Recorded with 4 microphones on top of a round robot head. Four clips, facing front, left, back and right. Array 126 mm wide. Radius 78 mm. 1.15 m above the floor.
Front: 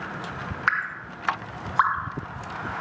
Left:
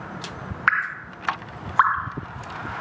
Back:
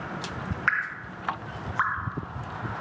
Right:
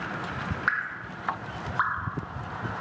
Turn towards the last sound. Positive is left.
turn(degrees=60)